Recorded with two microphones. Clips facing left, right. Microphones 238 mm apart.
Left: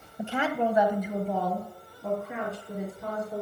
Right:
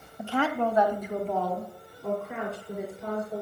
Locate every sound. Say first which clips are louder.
0.2 s a woman speaking: right 1 dB; 20° left (ahead or behind), 1.1 m; by 3.4 s centre (ahead or behind), 4 m